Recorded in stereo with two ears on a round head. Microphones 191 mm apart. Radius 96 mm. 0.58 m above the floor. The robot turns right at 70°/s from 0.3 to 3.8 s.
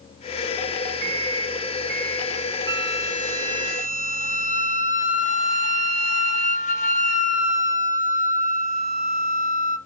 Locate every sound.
1.0 s a microwave: 100° right, 2.5 m; by 2.5 s straight ahead, 2.5 m
2.7 s a flute: 30° left, 1.0 m; by 9.8 s 110° left, 1.0 m